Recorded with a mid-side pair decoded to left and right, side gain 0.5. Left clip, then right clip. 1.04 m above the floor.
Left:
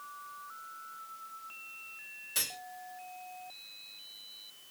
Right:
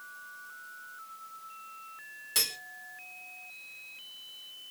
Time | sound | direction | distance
2.4 | cutlery clinking | 45° right | 1.4 m